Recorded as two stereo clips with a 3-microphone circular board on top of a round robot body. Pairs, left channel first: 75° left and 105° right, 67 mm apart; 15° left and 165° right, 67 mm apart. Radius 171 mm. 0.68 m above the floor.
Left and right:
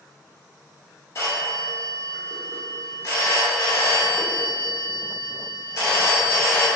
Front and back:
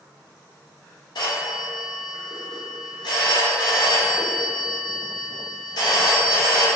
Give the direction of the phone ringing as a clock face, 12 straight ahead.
11 o'clock.